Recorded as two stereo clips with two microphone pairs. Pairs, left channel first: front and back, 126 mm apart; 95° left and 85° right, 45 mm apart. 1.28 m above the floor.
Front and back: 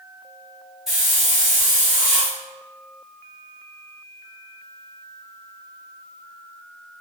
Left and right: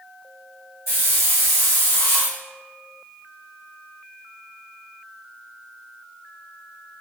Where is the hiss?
95° left, 1.4 m.